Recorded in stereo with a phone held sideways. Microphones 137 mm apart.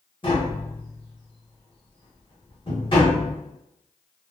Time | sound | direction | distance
0.2 | tapping | 40° left (ahead or behind) | 1.1 m